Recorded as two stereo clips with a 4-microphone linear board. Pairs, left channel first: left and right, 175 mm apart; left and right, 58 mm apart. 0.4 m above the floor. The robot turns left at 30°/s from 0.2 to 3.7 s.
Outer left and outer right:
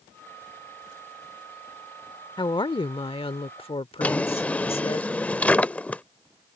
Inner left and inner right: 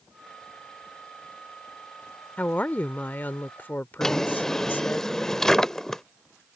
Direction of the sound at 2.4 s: 125° left.